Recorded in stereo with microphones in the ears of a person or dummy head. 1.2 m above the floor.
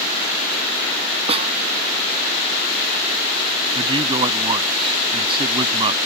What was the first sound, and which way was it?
A snare drum, 35° right (ahead or behind).